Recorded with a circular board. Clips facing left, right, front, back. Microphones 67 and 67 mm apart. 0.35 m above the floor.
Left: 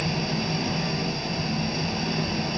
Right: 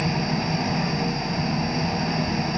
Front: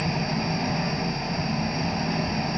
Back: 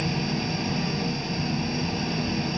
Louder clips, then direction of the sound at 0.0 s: Right 3 dB, front 1 dB; 40° right.